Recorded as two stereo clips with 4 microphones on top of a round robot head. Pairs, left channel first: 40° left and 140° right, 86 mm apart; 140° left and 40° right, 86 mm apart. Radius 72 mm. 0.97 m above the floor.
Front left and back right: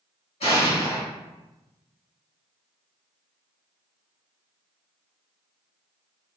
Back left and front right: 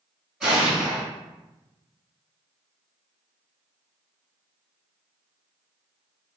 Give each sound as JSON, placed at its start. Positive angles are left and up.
{"t": 0.4, "sound": "an explosion", "azimuth_deg": 45, "distance_m": 1.9}